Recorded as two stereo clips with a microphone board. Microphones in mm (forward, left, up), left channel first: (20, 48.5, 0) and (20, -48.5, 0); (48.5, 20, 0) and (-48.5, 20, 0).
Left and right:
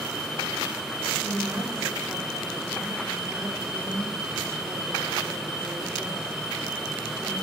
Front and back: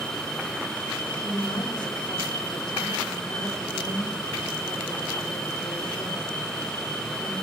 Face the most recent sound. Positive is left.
turn(degrees=-30)